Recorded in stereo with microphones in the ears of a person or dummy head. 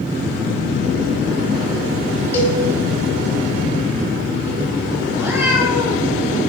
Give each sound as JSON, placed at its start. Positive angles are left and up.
{"t": 2.3, "sound": "a cowbell", "side_deg": 20, "distance_m": 3.5}
{"t": 5.1, "sound": "a cat meowing", "side_deg": -10, "distance_m": 5.0}